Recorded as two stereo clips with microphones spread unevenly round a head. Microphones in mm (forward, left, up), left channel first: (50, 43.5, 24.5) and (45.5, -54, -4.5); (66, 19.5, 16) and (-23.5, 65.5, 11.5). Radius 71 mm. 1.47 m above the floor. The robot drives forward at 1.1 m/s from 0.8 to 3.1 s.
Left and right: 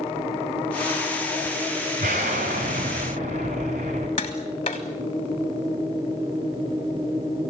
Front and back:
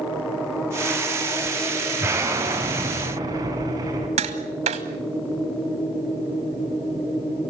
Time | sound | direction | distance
2.0 | an explosion | 130° right | 5 m
4.2 | tapping | 145° left | 3 m